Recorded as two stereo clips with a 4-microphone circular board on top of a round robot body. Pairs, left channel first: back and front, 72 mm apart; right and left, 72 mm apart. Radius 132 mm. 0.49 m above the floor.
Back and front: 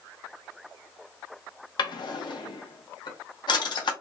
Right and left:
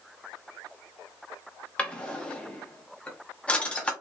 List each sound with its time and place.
1.8 s a drawer: 165° right, 0.7 m